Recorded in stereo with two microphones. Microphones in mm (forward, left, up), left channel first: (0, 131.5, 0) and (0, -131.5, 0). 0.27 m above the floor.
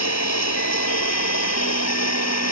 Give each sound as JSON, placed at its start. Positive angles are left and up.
{"t": 0.0, "sound": "running water", "side_deg": 80}